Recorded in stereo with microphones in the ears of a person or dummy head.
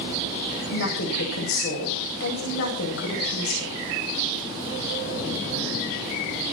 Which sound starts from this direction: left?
A woman speaking, at 0.7 s.